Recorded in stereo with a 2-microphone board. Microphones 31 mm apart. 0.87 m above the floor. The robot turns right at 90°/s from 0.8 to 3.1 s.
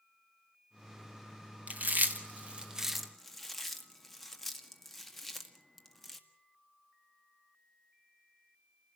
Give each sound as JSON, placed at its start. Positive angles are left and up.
{"t": 1.7, "sound": "chewing", "side_deg": -50, "distance_m": 1.7}